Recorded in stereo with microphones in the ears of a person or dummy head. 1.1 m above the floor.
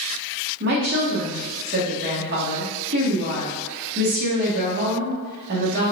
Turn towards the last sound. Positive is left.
turn(degrees=-55)  # may be behind; listen again after turning